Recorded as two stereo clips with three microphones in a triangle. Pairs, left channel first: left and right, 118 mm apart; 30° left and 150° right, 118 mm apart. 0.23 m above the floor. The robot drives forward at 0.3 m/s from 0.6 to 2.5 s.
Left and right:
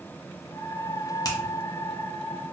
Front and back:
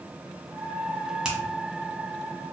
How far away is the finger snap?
About 1.1 m.